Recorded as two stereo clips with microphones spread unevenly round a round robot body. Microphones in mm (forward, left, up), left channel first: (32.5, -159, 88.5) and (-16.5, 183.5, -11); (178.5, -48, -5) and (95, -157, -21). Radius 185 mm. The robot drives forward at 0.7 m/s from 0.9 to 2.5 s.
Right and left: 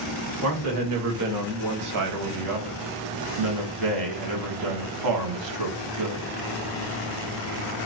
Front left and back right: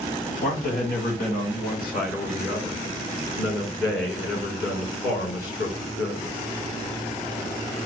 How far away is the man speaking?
About 2.0 m.